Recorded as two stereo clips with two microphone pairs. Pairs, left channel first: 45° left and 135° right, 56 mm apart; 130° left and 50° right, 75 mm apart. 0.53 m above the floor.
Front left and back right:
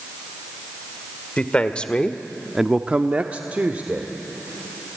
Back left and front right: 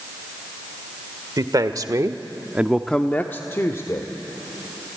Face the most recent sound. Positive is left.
turn(degrees=170)